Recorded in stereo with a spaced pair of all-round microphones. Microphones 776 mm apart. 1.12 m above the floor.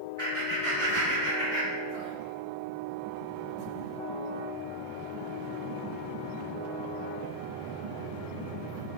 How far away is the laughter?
About 1.2 m.